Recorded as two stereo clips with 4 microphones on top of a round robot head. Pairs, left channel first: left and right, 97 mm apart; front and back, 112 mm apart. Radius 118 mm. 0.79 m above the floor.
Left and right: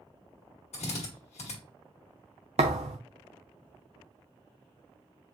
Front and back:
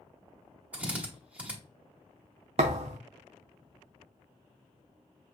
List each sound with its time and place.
0.7 s a drill: 105° left, 1.5 m
2.6 s a thud: 130° right, 0.5 m